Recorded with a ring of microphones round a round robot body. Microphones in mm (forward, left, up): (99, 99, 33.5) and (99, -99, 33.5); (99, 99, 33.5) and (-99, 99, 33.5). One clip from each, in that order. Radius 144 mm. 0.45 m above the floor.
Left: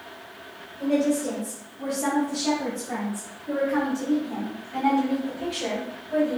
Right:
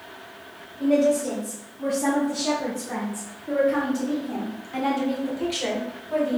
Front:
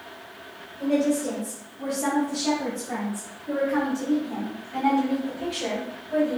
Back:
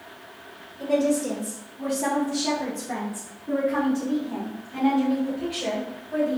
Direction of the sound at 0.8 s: 155° left.